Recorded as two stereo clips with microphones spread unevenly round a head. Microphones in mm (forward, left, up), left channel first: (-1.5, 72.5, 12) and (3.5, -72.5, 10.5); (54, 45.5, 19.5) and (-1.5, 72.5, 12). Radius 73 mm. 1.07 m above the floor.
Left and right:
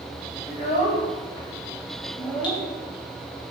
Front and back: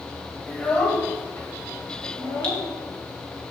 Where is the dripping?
35° left, 5 m.